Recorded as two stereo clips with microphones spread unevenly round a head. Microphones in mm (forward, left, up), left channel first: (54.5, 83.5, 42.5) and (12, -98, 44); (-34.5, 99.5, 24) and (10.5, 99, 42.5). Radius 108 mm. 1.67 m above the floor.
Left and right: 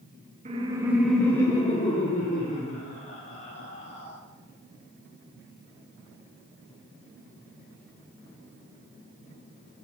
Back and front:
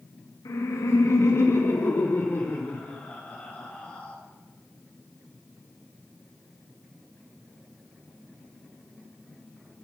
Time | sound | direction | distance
0.5 | laughter | 160° right | 0.8 m